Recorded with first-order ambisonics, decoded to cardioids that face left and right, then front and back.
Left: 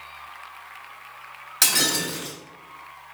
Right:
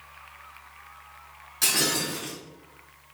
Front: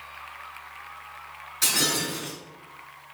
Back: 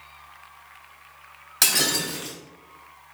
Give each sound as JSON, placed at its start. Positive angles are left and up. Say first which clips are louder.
{"t": 1.6, "sound": "breaking glass", "louder": "left 3 dB, back 2 dB", "azimuth_deg": 145, "distance_m": 2.0}